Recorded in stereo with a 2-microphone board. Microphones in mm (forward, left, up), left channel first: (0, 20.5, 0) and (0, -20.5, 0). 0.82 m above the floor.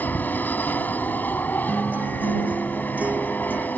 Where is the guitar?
40° right (ahead or behind).